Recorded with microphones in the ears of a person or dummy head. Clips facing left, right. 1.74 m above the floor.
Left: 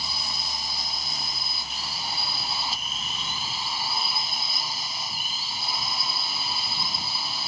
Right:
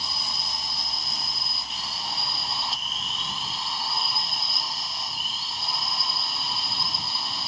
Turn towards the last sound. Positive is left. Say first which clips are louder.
# even
turn(degrees=0)  # may be behind; listen again after turning